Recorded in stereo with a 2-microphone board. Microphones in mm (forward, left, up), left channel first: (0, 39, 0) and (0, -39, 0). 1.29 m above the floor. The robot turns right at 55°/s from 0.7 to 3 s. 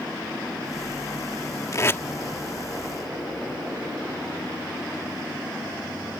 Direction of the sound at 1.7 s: 40° left (ahead or behind).